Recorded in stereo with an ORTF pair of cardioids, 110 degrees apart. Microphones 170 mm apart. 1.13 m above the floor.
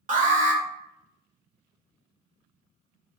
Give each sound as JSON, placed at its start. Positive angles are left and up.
{"t": 0.1, "sound": "an alarm", "azimuth_deg": -55, "distance_m": 1.1}